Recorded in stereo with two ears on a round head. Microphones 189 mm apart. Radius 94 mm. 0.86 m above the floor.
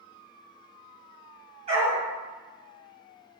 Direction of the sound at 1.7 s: 35° right (ahead or behind).